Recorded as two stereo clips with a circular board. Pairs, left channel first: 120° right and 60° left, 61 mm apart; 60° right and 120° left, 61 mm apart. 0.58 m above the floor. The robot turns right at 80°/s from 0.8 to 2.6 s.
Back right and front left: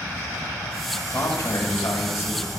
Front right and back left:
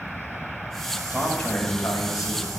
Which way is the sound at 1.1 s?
165° right.